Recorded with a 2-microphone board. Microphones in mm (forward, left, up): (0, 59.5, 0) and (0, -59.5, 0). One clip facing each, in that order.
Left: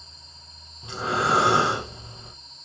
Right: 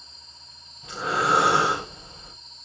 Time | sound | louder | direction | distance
0.8 | breathing | even | 25° left (ahead or behind) | 5 m